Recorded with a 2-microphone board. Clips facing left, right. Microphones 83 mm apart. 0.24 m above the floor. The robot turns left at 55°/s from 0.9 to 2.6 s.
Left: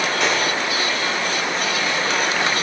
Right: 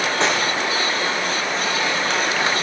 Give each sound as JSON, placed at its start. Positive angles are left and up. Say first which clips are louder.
{"t": 0.2, "sound": "cutlery clinking", "louder": "right 1 dB", "side_deg": -30, "distance_m": 8.5}